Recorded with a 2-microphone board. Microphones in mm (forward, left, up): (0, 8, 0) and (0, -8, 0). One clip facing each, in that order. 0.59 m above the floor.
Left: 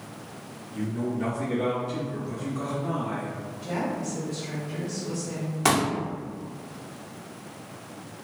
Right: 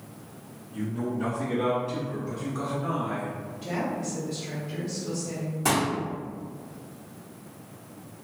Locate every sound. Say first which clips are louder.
0.7 s a man speaking: left 1 dB; 25° left (ahead or behind), 1.2 m; by 3.4 s 40° right (ahead or behind), 1.4 m
3.6 s a woman speaking: even; 30° right (ahead or behind), 1.3 m
5.7 s a pop: left 2 dB; 45° left (ahead or behind), 0.7 m